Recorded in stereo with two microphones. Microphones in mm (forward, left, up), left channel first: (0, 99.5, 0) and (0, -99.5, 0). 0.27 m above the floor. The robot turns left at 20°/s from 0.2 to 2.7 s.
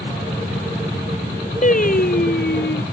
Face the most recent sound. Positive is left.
turn(degrees=60)  # may be behind; listen again after turning